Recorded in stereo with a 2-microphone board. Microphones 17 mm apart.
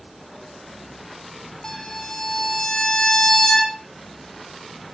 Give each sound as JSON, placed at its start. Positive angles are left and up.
{"t": 1.6, "sound": "a violin", "side_deg": 30, "distance_m": 2.5}